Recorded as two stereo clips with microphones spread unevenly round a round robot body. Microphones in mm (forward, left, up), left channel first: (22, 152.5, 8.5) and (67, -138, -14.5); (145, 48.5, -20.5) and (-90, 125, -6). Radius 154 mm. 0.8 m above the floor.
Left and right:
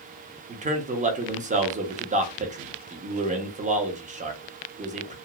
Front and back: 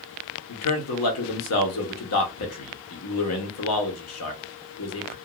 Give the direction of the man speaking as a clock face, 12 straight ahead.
1 o'clock.